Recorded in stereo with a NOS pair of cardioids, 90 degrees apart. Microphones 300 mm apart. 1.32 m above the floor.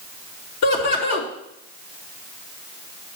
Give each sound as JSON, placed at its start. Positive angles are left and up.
{"t": 0.6, "sound": "laughter", "azimuth_deg": 60, "distance_m": 3.0}